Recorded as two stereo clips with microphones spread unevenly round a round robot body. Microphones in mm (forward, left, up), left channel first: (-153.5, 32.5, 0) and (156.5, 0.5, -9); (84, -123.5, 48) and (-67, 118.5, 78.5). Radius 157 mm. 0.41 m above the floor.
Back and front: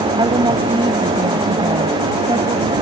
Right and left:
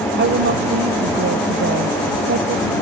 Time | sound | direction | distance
0.2 | a woman speaking | 70° left | ?